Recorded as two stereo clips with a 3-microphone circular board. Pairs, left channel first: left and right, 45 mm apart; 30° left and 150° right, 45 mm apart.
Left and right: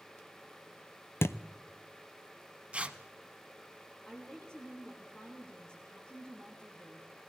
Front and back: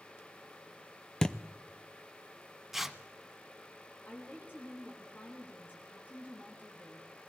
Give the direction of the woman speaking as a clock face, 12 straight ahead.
11 o'clock.